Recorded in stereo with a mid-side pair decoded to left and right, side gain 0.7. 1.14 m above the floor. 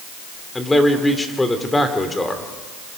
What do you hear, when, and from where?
0.6 s a man speaking: 10° left, 3 m